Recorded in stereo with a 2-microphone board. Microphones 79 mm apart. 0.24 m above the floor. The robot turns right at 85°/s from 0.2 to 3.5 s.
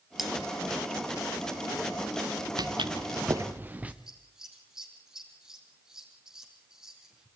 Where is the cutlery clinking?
5° right (ahead or behind), 2.5 m; by 0.3 s 5° left (ahead or behind), 2.5 m.